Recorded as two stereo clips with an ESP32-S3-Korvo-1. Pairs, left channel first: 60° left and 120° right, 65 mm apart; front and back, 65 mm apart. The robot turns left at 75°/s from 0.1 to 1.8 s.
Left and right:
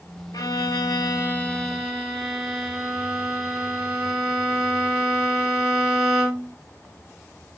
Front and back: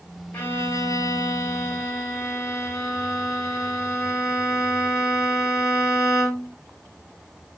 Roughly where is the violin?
Ahead left.